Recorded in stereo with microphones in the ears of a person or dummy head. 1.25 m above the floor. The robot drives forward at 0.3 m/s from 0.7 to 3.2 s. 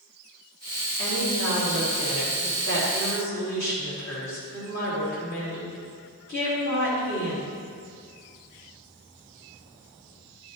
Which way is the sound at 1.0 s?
75° left (ahead or behind).